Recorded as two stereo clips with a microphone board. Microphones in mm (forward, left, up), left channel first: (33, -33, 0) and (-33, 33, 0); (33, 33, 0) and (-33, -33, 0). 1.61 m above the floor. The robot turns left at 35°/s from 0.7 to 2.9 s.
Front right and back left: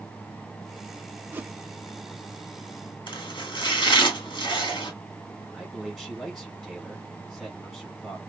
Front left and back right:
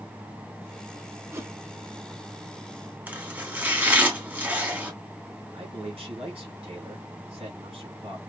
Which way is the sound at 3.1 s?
65° right.